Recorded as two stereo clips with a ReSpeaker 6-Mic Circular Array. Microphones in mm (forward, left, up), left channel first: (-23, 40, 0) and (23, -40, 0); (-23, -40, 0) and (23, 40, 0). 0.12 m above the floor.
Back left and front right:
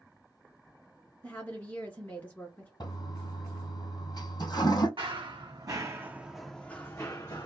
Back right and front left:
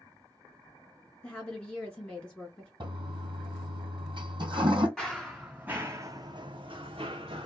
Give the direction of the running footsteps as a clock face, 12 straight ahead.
1 o'clock.